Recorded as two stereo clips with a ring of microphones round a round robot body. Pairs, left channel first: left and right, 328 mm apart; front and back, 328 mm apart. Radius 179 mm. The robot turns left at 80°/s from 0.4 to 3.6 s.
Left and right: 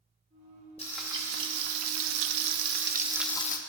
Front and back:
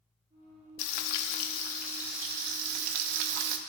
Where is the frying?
15° left, 0.7 m; by 3.6 s 155° left, 0.7 m.